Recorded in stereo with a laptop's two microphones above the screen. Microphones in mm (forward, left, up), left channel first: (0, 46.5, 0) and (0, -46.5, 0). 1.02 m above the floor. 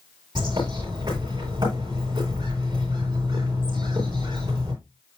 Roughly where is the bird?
Right.